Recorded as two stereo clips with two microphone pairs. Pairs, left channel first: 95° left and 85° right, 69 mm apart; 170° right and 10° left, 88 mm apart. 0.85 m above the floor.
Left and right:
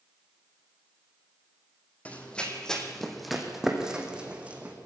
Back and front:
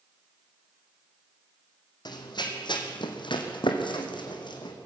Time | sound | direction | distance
2.0 | running footsteps | 165° left | 2.5 m